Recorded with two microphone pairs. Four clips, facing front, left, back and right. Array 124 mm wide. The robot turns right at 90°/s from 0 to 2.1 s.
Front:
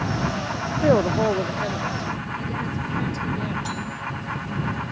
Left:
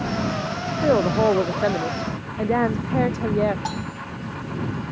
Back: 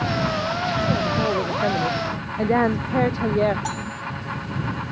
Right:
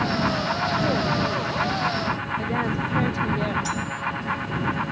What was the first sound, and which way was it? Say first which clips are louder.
A woman speaking: left 5 dB, front 7 dB; 35° left.